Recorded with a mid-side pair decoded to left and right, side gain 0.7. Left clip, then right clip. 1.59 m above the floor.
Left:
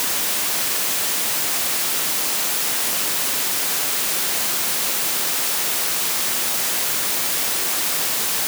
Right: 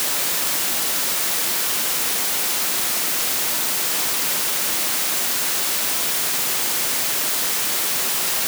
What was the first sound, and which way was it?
Only background noise.